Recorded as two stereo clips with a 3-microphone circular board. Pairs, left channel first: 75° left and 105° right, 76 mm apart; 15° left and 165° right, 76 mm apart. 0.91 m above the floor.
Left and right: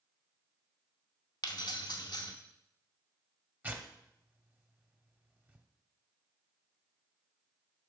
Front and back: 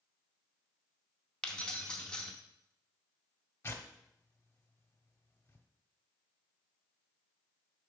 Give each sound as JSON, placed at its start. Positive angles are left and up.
{"t": 1.4, "sound": "keys jangling", "azimuth_deg": 95, "distance_m": 0.8}
{"t": 3.6, "sound": "tearing paper", "azimuth_deg": -40, "distance_m": 0.8}